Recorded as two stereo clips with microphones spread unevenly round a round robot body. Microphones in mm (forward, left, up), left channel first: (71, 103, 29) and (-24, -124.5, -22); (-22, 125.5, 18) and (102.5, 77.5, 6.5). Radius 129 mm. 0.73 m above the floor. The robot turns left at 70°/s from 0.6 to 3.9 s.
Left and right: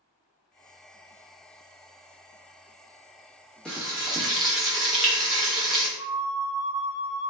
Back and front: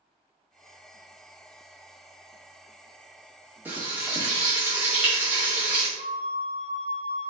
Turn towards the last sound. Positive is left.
turn(degrees=-20)